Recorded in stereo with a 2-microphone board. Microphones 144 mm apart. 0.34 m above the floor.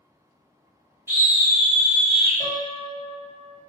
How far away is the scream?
About 2.0 m.